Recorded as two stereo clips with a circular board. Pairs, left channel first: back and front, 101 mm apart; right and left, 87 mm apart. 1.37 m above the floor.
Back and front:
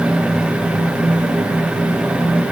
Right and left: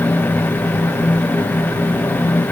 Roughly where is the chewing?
No chewing in this recording.